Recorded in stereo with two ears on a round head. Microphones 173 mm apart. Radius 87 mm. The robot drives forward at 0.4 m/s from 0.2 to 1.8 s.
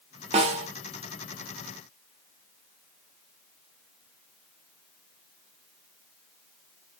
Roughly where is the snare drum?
Right.